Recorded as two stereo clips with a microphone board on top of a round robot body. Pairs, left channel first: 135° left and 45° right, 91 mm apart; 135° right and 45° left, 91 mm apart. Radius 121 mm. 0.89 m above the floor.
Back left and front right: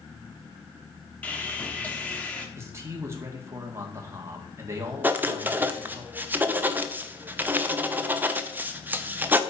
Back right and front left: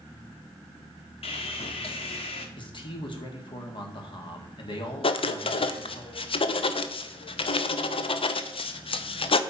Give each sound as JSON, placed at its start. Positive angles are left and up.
{"t": 1.2, "sound": "sawing", "azimuth_deg": -150, "distance_m": 1.3}
{"t": 2.6, "sound": "a man speaking", "azimuth_deg": -105, "distance_m": 1.9}
{"t": 5.0, "sound": "writing", "azimuth_deg": -115, "distance_m": 0.8}